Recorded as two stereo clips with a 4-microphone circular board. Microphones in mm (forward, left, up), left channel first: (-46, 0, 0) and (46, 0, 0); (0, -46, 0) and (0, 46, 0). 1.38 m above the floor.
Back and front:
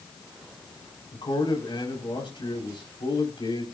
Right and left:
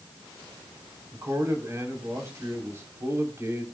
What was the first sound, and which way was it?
A man speaking, 150° left.